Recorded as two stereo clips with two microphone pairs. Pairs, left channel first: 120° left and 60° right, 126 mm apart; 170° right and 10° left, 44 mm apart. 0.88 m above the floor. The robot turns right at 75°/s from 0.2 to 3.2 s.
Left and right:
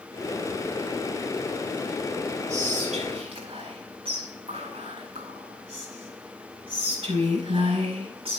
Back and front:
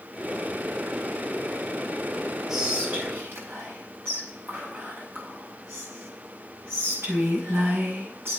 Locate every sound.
2.5 s whispering: 75° right, 5 m; by 8.4 s 20° right, 5 m